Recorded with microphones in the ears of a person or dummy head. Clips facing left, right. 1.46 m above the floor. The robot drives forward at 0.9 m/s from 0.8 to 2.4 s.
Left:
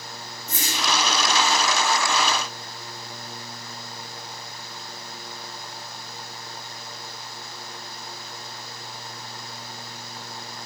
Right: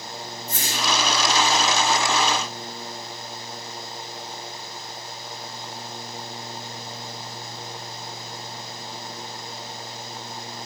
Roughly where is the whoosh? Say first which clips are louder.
Even; left.